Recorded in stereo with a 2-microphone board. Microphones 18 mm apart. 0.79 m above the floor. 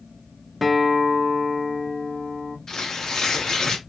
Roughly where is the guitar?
Centre.